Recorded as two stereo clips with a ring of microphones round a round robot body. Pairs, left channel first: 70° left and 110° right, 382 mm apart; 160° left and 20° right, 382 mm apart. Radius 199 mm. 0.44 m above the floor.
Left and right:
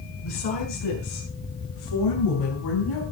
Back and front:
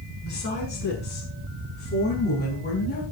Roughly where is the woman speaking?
Left.